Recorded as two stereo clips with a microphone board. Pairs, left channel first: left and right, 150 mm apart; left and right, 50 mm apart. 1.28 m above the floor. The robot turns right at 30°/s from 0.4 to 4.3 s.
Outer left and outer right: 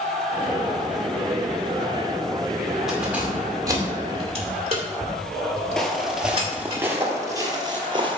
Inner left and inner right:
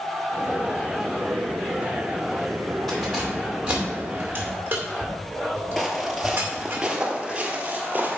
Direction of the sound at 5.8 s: 5° left (ahead or behind).